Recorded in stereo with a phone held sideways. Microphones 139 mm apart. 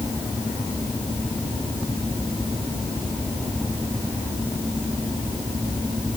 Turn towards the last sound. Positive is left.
No sound to turn to.